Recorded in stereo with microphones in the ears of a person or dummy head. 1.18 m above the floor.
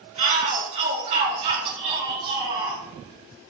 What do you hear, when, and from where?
0.2 s a shout: 40° right (ahead or behind), 5.5 m; by 2.8 s 30° right (ahead or behind), 4.5 m